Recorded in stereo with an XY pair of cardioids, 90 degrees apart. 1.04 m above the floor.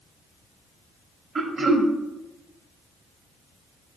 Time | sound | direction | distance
1.4 | throat clearing | 45° right | 0.8 m